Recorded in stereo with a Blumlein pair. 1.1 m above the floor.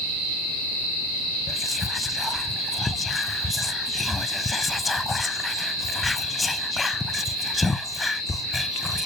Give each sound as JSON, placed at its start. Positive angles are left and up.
{"t": 1.5, "sound": "whispering", "azimuth_deg": 10, "distance_m": 0.6}